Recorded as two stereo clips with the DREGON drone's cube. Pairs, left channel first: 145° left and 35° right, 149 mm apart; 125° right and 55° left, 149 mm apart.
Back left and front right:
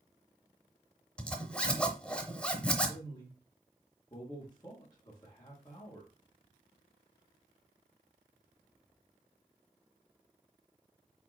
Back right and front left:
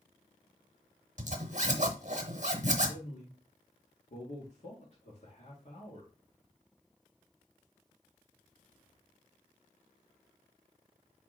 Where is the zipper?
65° left, 0.8 m.